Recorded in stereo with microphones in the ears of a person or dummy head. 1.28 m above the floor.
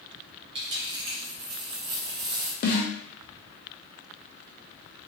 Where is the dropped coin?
30° right (ahead or behind), 0.7 m.